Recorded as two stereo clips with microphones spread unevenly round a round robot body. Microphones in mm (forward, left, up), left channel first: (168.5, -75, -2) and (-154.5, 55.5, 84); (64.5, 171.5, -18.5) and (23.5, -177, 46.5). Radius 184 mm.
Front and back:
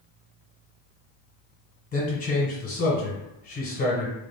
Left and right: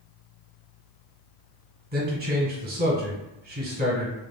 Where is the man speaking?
35° right, 1.2 m.